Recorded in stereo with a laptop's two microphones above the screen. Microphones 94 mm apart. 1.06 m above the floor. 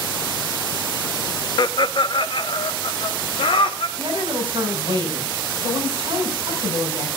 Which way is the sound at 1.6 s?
50° left (ahead or behind).